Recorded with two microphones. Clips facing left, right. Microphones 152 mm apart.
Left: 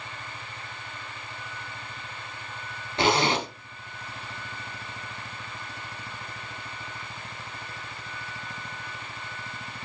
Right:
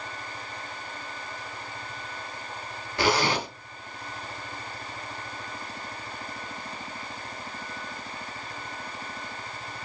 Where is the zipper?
25° left (ahead or behind), 0.9 m.